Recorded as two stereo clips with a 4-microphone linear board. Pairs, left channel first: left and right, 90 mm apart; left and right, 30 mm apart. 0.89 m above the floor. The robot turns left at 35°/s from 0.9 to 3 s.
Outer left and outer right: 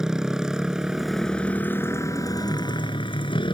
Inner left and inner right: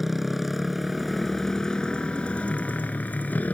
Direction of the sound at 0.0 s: 175° right.